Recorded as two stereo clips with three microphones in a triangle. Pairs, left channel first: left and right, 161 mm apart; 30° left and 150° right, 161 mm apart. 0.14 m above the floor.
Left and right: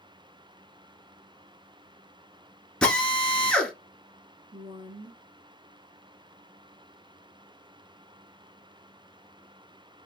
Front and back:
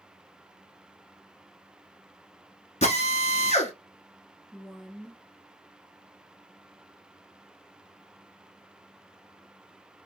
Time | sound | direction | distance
2.8 | a drill | 10° left | 1.0 m
4.5 | a woman speaking | 55° right | 1.3 m